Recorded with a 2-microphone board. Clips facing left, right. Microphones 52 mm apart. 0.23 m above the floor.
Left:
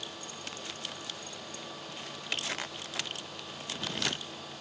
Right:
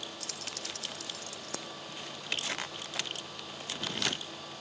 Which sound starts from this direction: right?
Keys jangling, at 0.2 s.